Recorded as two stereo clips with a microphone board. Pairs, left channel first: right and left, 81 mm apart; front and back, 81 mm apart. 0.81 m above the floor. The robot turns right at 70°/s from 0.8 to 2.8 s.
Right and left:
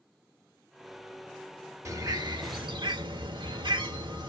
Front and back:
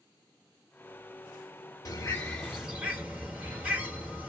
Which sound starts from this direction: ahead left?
A bird, at 1.9 s.